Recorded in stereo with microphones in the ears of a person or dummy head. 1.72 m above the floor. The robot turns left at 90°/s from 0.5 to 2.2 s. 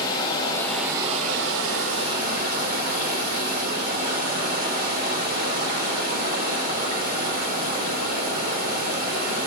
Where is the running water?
25° left, 3 m; by 9.5 s 125° right, 3 m.